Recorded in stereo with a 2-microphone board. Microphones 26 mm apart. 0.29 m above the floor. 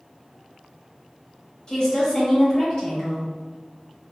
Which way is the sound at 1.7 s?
30° left (ahead or behind).